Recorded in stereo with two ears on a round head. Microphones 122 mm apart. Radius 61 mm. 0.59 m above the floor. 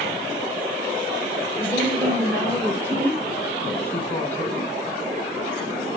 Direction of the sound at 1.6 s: 15° left (ahead or behind).